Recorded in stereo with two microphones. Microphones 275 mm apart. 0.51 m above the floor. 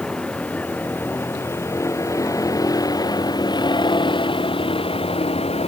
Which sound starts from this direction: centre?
A vehicle, at 0.0 s.